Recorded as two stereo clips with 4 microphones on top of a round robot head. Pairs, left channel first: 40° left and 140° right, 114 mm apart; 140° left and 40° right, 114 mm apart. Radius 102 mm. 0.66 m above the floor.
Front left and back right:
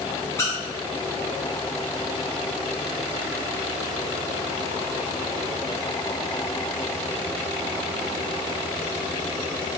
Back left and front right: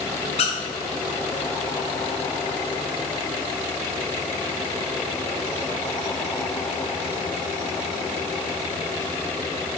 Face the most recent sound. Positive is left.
turn(degrees=105)